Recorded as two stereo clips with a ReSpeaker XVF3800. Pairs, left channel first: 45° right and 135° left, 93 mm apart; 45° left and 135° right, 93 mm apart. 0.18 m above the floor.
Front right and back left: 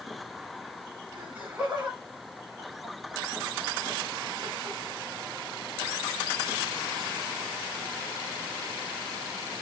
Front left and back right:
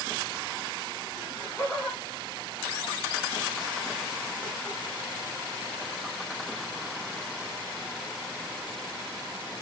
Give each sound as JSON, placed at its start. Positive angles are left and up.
{"t": 1.1, "sound": "laughter", "azimuth_deg": 90, "distance_m": 1.0}